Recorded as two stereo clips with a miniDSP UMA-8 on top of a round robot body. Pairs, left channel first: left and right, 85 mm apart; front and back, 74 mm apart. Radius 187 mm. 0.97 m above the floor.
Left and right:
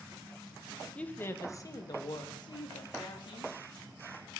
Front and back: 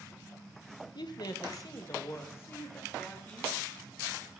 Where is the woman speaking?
15° left, 1.2 m; by 3.5 s 70° left, 3 m.